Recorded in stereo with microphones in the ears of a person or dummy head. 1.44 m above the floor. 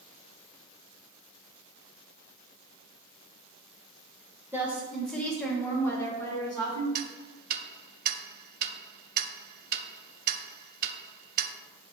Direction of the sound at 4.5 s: 10° right (ahead or behind).